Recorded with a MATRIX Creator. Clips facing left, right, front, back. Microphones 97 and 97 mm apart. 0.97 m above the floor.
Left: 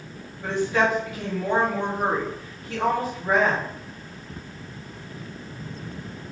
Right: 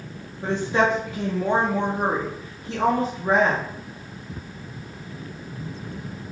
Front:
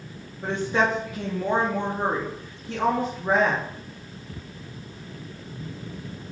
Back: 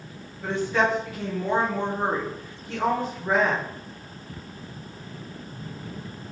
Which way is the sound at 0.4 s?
50° right.